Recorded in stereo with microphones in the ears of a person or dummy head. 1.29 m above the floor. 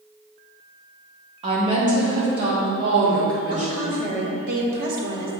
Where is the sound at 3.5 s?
50° right (ahead or behind), 1.5 m.